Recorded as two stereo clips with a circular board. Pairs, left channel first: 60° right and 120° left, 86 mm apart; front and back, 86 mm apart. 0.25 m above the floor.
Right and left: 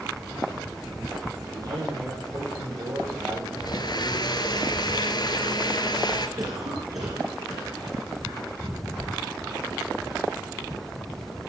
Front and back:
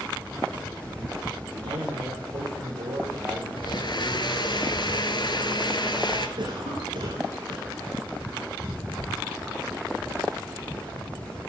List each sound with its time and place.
1.5 s a man speaking: 160° left, 9 m
3.6 s a blender: 25° right, 1.4 m
6.4 s a cough: 165° left, 3.5 m